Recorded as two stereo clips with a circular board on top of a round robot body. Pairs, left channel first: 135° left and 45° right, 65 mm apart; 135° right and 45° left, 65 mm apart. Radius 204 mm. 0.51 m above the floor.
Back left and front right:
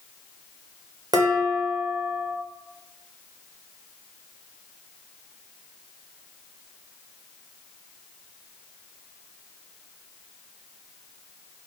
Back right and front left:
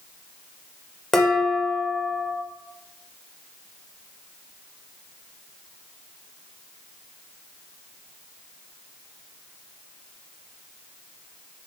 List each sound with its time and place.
1.1 s dishes clattering: 50° right, 1.3 m